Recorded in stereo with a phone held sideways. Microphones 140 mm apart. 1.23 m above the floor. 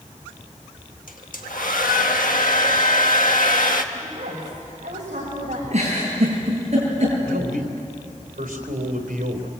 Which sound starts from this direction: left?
A hair dryer, at 1.1 s.